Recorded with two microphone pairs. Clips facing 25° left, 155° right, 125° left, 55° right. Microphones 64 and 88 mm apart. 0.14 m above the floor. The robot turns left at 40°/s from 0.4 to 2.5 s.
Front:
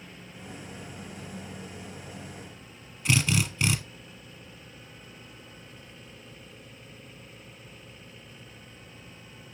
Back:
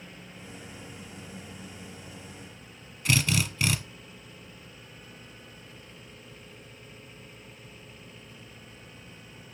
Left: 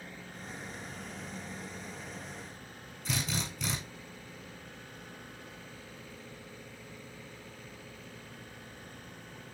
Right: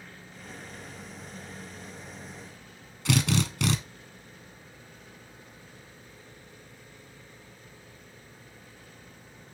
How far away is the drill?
About 1.6 m.